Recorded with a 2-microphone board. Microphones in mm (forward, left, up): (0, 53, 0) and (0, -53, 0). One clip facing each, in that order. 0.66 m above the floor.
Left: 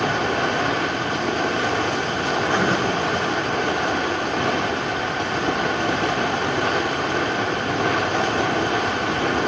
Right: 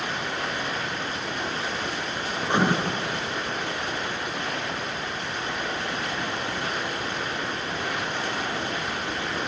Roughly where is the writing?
Centre.